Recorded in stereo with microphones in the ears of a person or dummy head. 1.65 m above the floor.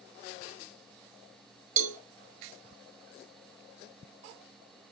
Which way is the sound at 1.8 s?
50° right (ahead or behind).